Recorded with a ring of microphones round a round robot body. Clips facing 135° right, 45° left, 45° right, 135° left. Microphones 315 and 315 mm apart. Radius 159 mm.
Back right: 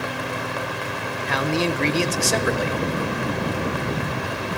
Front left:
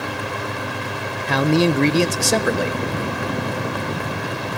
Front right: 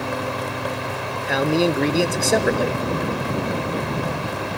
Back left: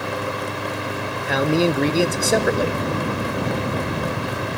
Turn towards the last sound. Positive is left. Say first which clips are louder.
# front left 6 dB, even
turn(degrees=45)